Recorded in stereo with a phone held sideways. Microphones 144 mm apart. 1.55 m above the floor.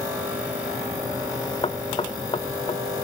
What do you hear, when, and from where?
1.6 s knocking: 40° left (ahead or behind), 1.2 m